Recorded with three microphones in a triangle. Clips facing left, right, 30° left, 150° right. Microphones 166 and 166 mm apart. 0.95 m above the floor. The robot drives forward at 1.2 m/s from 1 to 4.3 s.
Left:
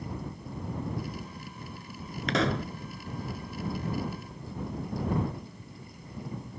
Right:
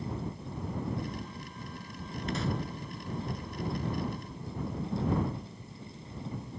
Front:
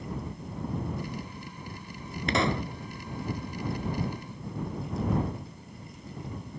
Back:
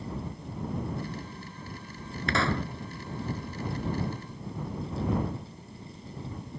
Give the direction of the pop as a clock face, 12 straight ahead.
9 o'clock.